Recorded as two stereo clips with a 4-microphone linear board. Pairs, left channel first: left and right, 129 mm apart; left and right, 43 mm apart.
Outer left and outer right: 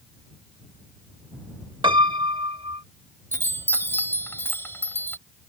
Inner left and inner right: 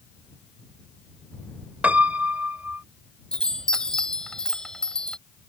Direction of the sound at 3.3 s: 20° left (ahead or behind).